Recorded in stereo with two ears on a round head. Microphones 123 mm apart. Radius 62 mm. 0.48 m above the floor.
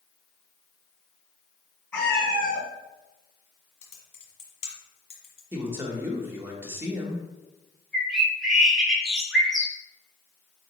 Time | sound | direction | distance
1.9 | a cat meowing | 15° left (ahead or behind) | 2 m
3.8 | typing on a keyboard | 50° left (ahead or behind) | 1.3 m
5.5 | a man speaking | 15° right (ahead or behind) | 0.8 m
7.9 | a bird | centre (ahead or behind) | 0.9 m